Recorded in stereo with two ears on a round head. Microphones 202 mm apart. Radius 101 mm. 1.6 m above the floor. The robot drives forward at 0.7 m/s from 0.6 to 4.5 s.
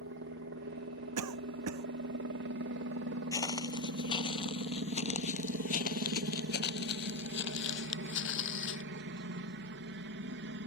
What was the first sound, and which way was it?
A helicopter, 55° right (ahead or behind).